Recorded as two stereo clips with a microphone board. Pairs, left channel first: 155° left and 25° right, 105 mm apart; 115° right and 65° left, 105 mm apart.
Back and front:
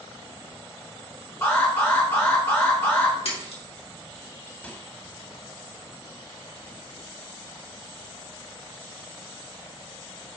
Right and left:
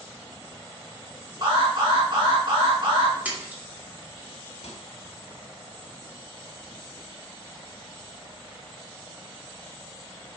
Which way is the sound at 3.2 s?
140° left.